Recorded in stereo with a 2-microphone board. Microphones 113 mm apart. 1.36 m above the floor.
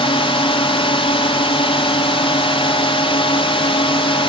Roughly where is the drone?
Left.